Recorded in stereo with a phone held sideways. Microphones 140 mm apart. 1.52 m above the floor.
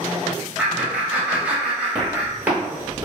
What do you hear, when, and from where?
0.6 s laughter: 10° right (ahead or behind), 1.2 m
1.9 s footsteps: 10° right (ahead or behind), 1.8 m; by 3.0 s 20° right (ahead or behind), 1.6 m